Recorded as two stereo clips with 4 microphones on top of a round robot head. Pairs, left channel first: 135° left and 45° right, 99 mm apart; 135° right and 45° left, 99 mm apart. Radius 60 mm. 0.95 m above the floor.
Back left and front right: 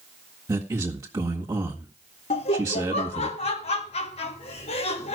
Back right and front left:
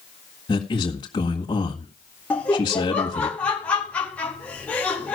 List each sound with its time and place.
0.5 s a man speaking: 95° right, 1.8 m
2.3 s laughter: 150° left, 1.4 m